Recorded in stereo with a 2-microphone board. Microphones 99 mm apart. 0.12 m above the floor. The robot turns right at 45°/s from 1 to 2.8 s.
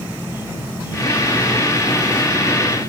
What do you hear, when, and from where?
0.0 s an insect: 160° right; by 2.9 s 75° right